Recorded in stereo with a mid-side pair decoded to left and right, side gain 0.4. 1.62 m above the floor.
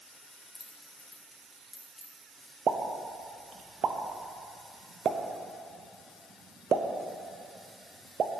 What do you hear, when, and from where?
0.3 s keys jangling: 10° left, 1.9 m; by 2.1 s 35° left, 3 m
2.7 s a pop: 55° right, 0.7 m